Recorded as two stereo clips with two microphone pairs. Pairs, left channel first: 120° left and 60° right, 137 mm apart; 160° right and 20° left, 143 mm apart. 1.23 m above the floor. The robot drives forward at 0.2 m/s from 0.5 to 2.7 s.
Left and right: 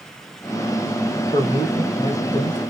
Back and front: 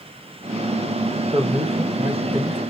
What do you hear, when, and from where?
1.3 s a man speaking: 70° left, 1.5 m; by 2.6 s 80° left, 1.4 m